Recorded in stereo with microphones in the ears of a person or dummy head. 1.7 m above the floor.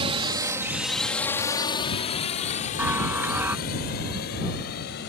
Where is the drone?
35° right (ahead or behind); by 5.1 s 60° left (ahead or behind).